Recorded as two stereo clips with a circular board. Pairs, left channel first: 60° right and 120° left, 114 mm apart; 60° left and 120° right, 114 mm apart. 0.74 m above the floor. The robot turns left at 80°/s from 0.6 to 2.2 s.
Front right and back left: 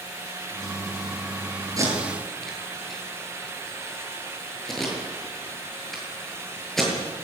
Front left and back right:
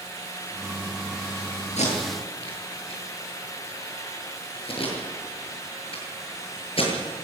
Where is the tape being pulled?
60° left, 7 m; by 6.9 s 25° left, 7 m.